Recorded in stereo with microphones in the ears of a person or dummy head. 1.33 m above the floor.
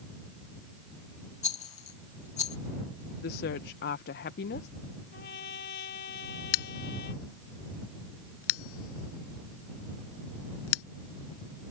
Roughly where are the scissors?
Left.